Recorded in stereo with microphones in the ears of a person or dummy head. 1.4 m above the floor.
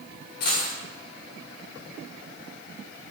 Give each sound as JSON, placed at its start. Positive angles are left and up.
{"t": 0.4, "sound": "a dropped coin", "side_deg": 60, "distance_m": 1.8}